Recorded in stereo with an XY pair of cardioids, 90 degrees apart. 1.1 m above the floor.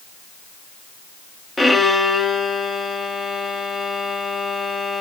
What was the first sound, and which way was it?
A violin, 20° left.